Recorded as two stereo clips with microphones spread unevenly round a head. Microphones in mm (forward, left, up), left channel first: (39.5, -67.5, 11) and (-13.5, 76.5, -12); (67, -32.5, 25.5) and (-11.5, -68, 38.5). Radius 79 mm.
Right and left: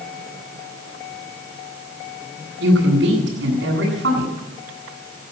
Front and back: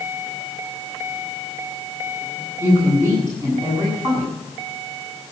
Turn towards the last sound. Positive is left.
turn(degrees=130)